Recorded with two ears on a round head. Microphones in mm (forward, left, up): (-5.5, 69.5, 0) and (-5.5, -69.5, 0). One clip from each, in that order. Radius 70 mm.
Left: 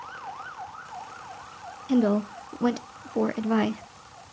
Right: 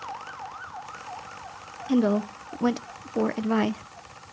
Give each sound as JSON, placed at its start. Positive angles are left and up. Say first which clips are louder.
{"t": 1.9, "sound": "a woman speaking", "louder": "even", "side_deg": -5, "distance_m": 0.5}